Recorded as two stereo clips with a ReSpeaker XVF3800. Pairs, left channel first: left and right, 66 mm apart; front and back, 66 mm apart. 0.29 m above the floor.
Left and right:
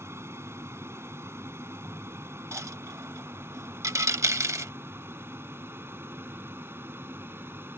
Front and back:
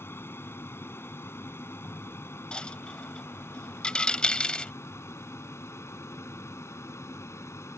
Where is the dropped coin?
70° right.